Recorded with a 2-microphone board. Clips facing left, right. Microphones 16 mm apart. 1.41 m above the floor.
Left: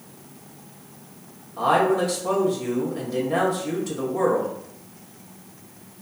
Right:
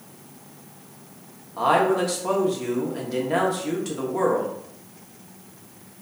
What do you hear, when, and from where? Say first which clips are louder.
1.6 s a man speaking: even; 65° right (ahead or behind), 1.0 m